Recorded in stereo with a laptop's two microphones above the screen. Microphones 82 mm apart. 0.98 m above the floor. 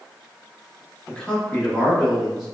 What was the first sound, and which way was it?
A man speaking, 15° left (ahead or behind).